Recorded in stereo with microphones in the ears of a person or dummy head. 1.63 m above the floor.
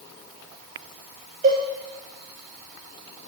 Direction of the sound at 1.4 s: 45° right (ahead or behind).